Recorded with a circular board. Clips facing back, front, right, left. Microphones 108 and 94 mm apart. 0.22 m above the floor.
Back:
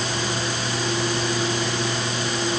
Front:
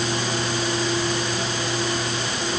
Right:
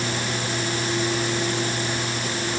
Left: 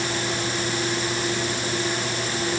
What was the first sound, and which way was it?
Only background noise.